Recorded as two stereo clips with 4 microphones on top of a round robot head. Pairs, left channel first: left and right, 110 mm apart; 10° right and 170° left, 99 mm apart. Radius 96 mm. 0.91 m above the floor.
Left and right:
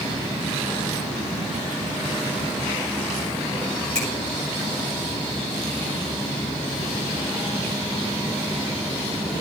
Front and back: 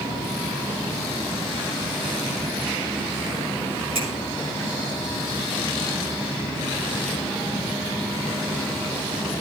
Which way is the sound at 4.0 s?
165° left.